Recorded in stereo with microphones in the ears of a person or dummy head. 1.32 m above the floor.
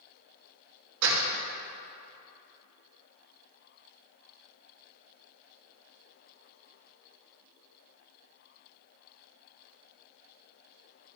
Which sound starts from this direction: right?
A door slam, at 1.0 s.